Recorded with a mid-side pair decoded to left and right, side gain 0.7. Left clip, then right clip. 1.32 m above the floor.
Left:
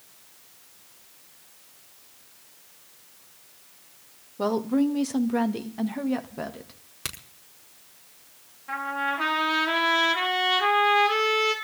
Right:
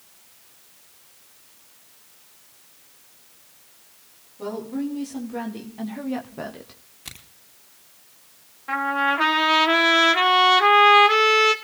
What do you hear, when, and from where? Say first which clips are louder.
4.4 s a woman speaking: left 5 dB; 50° left, 2 m; by 6.8 s 10° right, 1.6 m
7.0 s a crack: left 5 dB; 65° left, 4.5 m
8.7 s a trumpet: right 6 dB; 35° right, 2.5 m